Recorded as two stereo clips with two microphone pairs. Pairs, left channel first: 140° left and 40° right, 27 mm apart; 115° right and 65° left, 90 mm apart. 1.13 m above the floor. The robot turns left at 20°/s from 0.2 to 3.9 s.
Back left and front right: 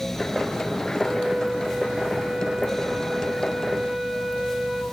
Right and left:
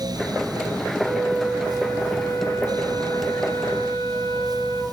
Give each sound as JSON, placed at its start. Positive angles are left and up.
{"t": 1.0, "sound": "a flute", "azimuth_deg": -35, "distance_m": 4.0}